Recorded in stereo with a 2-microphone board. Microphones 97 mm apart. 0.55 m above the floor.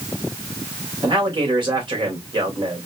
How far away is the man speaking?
About 2.5 m.